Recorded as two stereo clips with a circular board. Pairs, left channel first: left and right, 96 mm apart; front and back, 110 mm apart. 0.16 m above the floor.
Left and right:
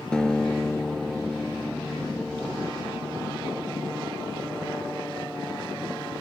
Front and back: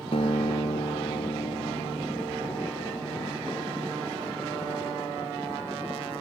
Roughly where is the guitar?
Ahead.